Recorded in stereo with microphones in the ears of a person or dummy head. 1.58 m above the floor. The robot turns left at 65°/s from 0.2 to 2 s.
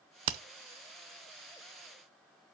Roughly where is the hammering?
Right.